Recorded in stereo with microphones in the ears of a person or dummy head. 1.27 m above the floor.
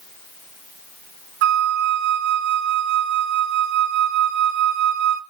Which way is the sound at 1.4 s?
55° right (ahead or behind).